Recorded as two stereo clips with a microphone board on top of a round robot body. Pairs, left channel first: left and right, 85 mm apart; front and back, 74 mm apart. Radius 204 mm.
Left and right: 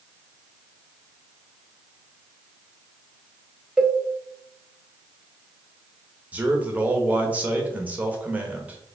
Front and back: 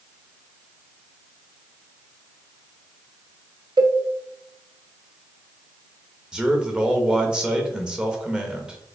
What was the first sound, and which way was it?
A cowbell, 170° right.